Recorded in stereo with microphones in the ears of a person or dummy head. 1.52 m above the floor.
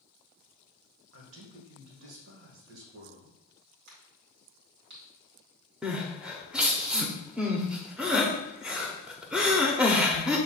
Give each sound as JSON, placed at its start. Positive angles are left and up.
{"t": 1.1, "sound": "a man speaking", "side_deg": -80, "distance_m": 1.3}
{"t": 3.9, "sound": "a crack", "side_deg": -60, "distance_m": 1.9}
{"t": 5.8, "sound": "crying", "side_deg": -5, "distance_m": 0.5}